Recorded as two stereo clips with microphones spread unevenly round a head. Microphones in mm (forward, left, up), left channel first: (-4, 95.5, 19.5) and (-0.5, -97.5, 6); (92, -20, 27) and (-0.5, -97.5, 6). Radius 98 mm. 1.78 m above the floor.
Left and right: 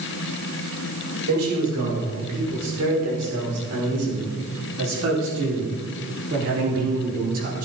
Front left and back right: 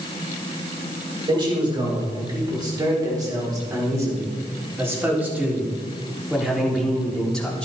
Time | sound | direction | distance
1.3 | a man speaking | 90° right | 6 m